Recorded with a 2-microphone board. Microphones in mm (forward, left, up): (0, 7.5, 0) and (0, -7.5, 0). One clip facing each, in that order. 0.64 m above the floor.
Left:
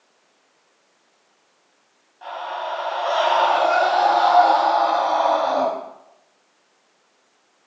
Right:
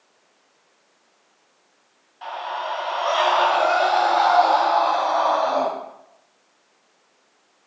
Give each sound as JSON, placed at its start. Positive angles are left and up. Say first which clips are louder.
{"t": 2.2, "sound": "a scream", "louder": "even", "side_deg": -15, "distance_m": 4.0}